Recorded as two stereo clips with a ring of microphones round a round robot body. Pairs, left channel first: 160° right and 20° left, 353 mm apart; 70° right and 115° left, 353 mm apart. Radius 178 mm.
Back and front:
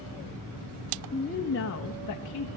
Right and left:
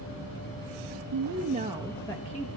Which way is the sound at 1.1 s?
130° left.